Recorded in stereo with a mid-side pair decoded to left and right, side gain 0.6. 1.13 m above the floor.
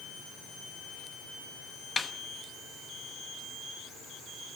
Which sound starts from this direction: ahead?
A snare drum, at 2.0 s.